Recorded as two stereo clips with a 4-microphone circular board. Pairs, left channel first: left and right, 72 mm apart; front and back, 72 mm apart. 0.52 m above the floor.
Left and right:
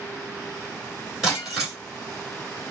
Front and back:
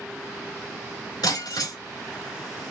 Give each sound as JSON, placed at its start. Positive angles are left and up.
{"t": 1.2, "sound": "breaking glass", "azimuth_deg": -5, "distance_m": 3.5}